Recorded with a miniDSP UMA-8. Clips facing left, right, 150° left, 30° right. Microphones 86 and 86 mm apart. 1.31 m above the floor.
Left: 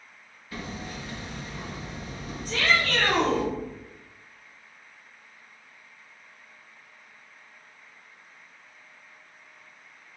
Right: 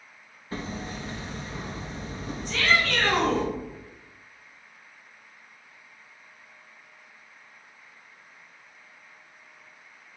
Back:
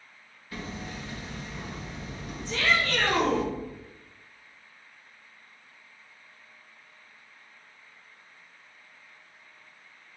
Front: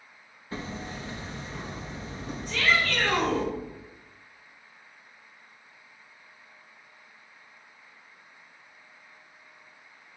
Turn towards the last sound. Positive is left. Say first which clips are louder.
# even, front 1 dB
turn(degrees=135)